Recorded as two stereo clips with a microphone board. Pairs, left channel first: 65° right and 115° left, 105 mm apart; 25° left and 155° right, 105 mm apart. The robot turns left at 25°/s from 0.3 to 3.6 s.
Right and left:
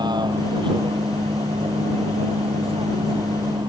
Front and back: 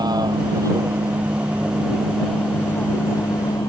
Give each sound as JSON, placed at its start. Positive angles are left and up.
{"t": 0.0, "sound": "a vehicle", "azimuth_deg": 155}